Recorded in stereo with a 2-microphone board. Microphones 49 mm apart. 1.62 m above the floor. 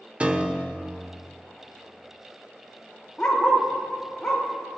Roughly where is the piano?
Right.